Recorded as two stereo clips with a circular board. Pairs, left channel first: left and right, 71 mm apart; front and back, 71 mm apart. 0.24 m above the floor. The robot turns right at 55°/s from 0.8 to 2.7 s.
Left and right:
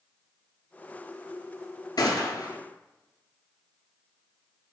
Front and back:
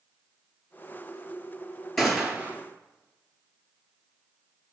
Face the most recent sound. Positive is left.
turn(degrees=125)